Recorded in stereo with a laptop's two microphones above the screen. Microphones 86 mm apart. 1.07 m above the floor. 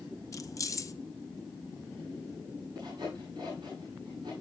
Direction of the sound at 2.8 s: 60° right (ahead or behind).